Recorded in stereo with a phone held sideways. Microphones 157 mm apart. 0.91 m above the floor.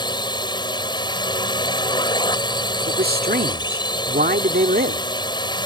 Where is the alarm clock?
No alarm clock in this recording.